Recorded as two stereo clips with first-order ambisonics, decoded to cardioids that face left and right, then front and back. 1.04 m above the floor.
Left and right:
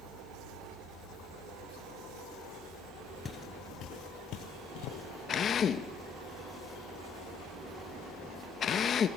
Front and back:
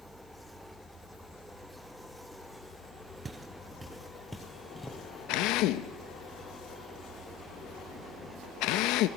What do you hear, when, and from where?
3.2 s footsteps: 125° left, 1.0 m; by 5.0 s 80° left, 2.5 m
5.3 s a drill: 30° left, 0.8 m